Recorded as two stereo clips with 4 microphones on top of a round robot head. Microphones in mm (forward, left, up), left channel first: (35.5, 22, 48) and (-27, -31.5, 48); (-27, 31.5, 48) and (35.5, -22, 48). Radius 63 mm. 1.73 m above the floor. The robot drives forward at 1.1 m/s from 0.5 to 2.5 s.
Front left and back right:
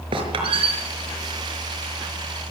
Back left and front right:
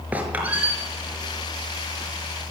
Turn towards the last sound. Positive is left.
turn(degrees=-130)